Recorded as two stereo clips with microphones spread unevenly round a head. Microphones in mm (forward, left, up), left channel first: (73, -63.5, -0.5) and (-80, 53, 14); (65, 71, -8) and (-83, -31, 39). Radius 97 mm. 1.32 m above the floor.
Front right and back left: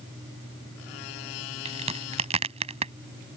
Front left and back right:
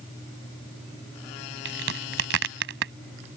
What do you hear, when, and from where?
1.6 s a crack: 160° right